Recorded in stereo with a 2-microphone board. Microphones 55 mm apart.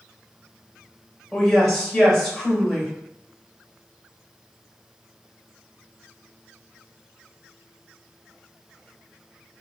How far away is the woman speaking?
About 1.5 m.